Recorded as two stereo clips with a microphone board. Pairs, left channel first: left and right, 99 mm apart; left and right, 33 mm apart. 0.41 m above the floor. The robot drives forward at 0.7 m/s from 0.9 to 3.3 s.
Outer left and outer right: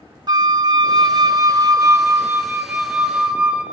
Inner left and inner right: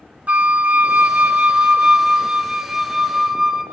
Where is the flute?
45° right (ahead or behind), 0.5 m; by 3.6 s 15° right (ahead or behind), 1.7 m.